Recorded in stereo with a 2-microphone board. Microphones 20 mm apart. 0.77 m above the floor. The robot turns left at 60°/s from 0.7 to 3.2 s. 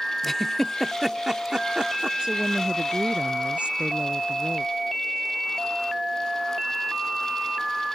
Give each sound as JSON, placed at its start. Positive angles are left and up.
{"t": 0.2, "sound": "a giggle", "side_deg": 10}
{"t": 2.2, "sound": "a woman speaking", "azimuth_deg": -40}